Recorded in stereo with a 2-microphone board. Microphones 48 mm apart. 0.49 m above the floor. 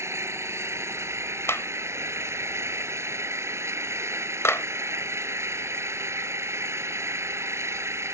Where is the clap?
65° left (ahead or behind).